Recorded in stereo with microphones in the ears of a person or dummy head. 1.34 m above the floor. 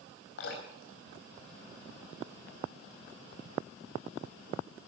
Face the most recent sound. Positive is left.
turn(degrees=80)